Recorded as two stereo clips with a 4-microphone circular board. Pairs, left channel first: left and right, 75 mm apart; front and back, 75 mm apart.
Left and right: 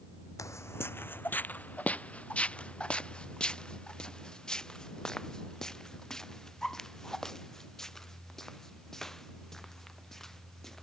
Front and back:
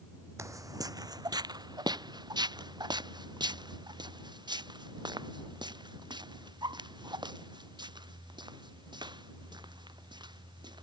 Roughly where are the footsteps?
Behind left.